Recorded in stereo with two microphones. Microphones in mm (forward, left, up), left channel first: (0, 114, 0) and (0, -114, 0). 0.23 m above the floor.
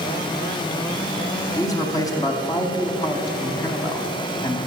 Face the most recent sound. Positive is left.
turn(degrees=15)  # may be behind; listen again after turning